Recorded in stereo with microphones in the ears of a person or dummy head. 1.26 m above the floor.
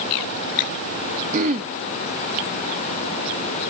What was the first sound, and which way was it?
Throat clearing, 40° right (ahead or behind).